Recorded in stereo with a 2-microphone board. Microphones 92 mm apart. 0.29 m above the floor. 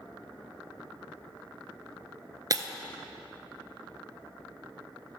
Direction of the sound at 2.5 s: 45° right (ahead or behind).